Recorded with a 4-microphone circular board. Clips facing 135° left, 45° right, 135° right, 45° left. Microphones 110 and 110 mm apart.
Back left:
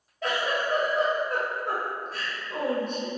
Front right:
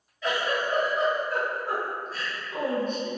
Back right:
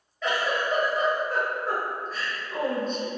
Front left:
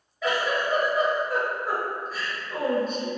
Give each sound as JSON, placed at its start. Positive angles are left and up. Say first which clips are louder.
{"t": 0.2, "sound": "a giggle", "louder": "even, front left 1 dB", "azimuth_deg": 130, "distance_m": 1.0}